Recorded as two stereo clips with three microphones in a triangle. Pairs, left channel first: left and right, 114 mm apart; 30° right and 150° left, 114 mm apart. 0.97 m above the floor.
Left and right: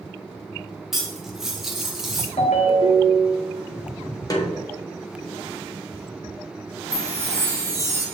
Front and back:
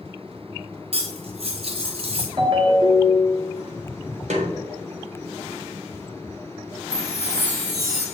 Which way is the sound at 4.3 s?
150° left.